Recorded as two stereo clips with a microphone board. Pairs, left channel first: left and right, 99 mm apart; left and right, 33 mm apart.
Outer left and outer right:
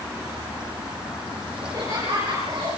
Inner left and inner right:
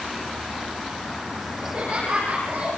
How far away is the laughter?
About 7 m.